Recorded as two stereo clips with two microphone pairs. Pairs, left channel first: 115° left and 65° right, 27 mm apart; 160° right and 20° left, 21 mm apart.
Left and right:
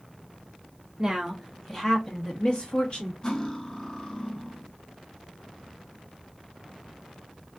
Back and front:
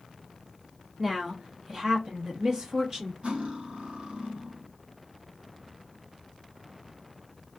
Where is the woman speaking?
35° right, 0.7 m; by 3.1 s 80° left, 1.3 m.